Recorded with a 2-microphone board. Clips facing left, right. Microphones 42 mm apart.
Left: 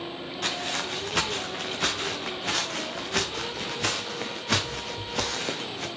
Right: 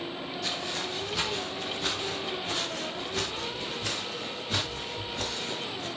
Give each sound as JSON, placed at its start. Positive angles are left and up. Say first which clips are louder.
{"t": 0.4, "sound": "footsteps", "louder": "left 5 dB", "side_deg": 60, "distance_m": 4.5}